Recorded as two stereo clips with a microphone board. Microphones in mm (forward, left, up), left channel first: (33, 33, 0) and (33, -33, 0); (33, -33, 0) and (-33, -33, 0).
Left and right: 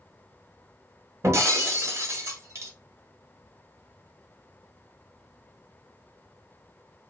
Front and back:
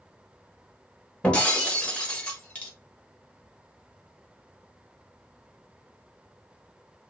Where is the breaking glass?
65° right, 0.8 m.